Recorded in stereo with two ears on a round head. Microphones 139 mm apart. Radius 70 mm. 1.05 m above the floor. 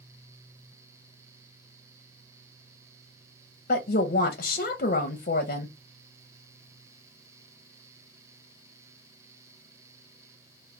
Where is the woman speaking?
60° left (ahead or behind), 0.6 m.